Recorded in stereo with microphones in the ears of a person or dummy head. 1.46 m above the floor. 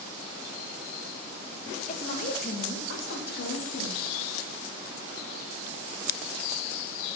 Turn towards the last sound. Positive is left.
turn(degrees=65)  # may be behind; listen again after turning